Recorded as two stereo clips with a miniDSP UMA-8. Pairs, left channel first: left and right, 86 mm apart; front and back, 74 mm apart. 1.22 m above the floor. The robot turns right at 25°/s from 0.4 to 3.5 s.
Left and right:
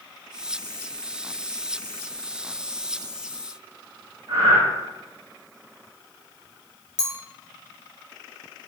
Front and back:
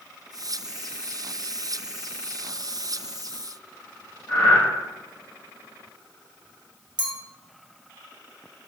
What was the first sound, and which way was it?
Breathing, 65° right.